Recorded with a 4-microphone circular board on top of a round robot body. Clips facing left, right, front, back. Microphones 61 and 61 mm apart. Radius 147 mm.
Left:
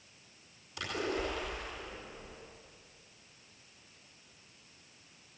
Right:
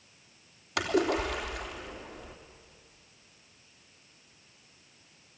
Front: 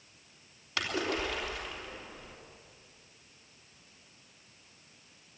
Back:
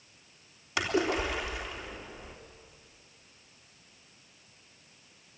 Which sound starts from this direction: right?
A splash, at 0.8 s.